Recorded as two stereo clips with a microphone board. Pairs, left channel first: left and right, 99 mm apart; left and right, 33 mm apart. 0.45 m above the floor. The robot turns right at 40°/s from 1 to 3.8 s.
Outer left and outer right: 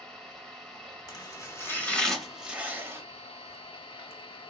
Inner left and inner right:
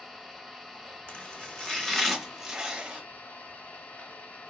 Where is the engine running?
5° left, 0.8 m; by 4.5 s 115° left, 0.8 m.